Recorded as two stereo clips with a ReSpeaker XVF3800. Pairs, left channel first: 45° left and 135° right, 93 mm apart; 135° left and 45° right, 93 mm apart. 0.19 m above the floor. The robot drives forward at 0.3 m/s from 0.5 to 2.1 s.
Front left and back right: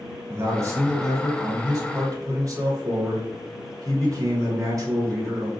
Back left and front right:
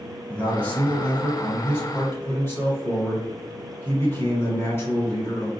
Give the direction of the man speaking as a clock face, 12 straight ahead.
5 o'clock.